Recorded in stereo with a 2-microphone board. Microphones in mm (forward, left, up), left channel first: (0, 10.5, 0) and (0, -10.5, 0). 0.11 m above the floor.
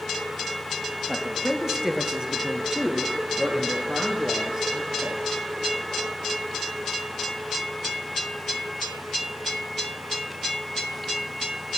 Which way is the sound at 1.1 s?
20° right (ahead or behind).